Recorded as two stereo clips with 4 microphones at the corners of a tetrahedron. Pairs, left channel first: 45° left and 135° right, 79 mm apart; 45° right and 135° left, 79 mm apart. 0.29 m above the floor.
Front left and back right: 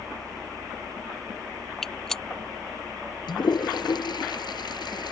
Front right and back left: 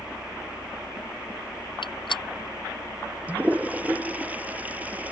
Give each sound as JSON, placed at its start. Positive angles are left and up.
{"t": 1.8, "sound": "a gunshot", "azimuth_deg": -40}
{"t": 3.3, "sound": "a toilet flushing", "azimuth_deg": 65}